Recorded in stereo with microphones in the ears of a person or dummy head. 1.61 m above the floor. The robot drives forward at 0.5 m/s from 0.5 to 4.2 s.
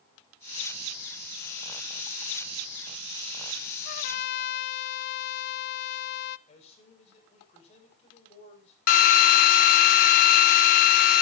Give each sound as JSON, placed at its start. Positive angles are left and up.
{"t": 3.9, "sound": "a trumpet", "side_deg": 50, "distance_m": 0.7}
{"t": 6.5, "sound": "a man speaking", "side_deg": 35, "distance_m": 7.5}
{"t": 8.9, "sound": "a drill", "side_deg": 50, "distance_m": 0.7}